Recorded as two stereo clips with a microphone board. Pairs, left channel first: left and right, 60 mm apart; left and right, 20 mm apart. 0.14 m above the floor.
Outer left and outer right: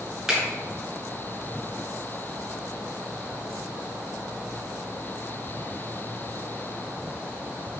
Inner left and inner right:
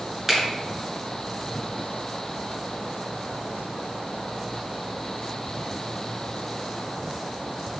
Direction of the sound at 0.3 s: 5° right (ahead or behind).